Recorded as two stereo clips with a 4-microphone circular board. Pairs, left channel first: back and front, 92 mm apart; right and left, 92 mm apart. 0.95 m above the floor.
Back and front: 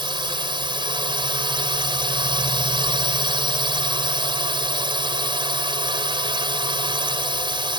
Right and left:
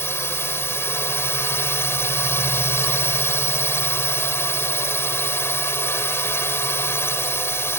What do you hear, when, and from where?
0.0 s a drone: 25° right